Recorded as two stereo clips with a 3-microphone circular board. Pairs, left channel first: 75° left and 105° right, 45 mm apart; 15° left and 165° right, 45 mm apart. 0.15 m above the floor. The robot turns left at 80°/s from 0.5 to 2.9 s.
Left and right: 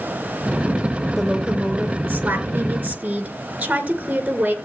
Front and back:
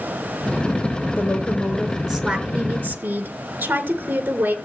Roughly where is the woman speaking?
Ahead.